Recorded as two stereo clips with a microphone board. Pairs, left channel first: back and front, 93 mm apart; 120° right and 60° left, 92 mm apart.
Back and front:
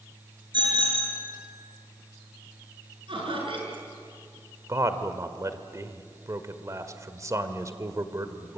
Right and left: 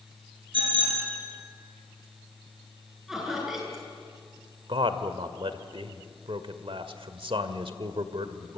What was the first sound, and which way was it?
A bicycle bell, 35° left.